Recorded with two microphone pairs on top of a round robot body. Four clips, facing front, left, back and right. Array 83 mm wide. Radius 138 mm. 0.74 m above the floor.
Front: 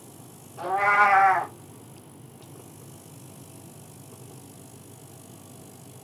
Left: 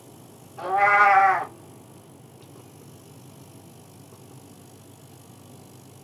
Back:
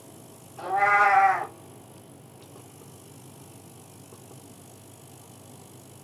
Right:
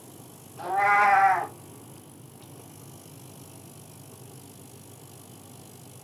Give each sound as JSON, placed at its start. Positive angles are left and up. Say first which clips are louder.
{"t": 0.6, "sound": "a cat meowing", "louder": "left 3 dB, even", "azimuth_deg": 70, "distance_m": 1.7}